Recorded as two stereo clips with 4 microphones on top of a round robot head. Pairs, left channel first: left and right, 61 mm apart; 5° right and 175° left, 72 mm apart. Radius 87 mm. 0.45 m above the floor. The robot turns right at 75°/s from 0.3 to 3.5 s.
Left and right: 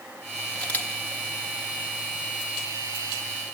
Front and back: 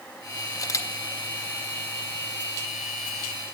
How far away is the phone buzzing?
No phone buzzing in this recording.